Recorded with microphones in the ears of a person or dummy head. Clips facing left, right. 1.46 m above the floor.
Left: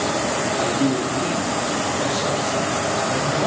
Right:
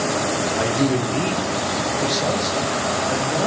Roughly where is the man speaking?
Right.